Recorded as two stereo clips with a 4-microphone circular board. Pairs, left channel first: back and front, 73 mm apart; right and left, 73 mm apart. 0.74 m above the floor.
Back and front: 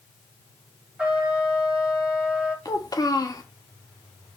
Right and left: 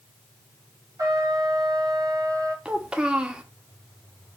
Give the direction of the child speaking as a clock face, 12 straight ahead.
7 o'clock.